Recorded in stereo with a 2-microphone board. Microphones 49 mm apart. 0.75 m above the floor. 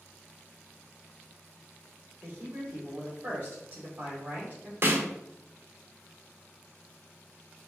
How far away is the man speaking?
About 1.7 m.